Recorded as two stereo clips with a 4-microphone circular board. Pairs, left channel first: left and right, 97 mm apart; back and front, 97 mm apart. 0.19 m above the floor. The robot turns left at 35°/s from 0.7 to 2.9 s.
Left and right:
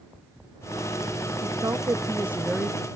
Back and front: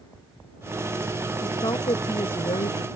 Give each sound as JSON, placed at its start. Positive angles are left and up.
{"t": 1.4, "sound": "a woman speaking", "azimuth_deg": -135}